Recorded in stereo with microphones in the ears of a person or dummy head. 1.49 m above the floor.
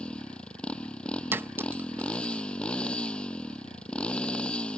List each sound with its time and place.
0.0 s a motorcycle: 10° left (ahead or behind)
1.3 s a clink: 10° right (ahead or behind)